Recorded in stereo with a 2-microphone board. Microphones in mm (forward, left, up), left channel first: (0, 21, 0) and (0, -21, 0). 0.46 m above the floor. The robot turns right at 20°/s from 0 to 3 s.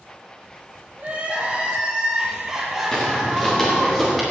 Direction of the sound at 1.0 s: 35° right.